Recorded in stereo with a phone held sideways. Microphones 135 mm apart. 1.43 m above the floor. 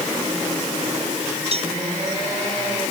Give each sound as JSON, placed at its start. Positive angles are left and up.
{"t": 1.5, "sound": "a cowbell", "side_deg": -50}